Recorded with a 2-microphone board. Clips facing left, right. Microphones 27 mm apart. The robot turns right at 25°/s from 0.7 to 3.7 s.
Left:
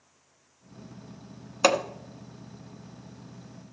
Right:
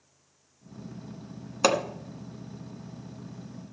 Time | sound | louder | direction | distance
1.6 | hammering | left 1 dB | 5° left (ahead or behind) | 1.1 m